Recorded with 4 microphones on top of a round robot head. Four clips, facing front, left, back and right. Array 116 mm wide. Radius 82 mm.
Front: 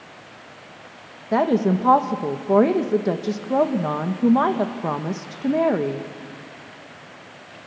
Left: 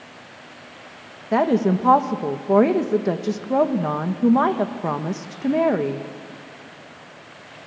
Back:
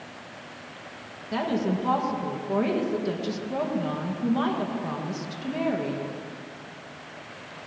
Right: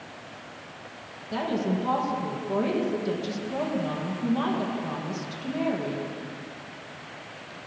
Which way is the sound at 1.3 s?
45° left.